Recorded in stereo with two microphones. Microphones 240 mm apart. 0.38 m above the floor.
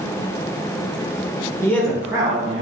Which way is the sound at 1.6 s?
10° left (ahead or behind).